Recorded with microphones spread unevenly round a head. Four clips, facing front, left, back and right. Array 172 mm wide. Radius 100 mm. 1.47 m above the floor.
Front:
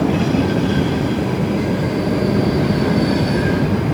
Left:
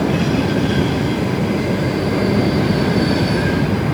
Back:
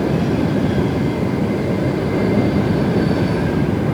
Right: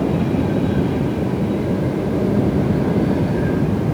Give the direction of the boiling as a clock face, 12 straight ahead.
No boiling in this recording.